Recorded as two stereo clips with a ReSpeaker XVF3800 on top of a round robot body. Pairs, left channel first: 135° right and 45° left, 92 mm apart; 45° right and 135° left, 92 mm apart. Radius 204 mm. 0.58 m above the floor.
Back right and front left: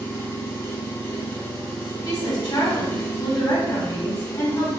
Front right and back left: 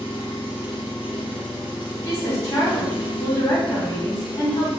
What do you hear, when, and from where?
0.0 s an engine running: 75° right, 1.0 m
2.0 s a woman speaking: 95° right, 1.6 m